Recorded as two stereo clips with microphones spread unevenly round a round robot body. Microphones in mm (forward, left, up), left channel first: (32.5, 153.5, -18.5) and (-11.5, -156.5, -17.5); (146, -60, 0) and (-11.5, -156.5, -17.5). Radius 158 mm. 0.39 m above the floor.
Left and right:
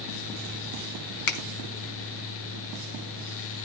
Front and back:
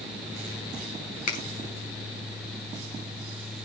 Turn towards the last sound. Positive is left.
turn(degrees=90)